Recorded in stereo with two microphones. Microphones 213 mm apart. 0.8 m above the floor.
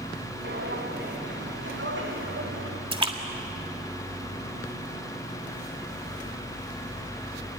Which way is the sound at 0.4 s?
50° right (ahead or behind).